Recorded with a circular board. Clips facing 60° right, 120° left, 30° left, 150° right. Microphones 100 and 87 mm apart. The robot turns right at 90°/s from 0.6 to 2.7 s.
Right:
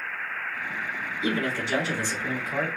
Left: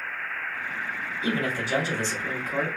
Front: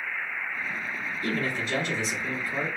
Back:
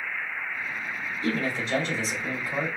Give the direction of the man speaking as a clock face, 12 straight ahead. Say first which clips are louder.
Even, back 2 dB; 7 o'clock.